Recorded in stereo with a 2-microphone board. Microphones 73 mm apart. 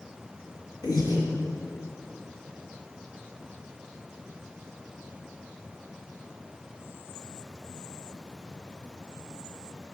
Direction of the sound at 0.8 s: 70° left (ahead or behind).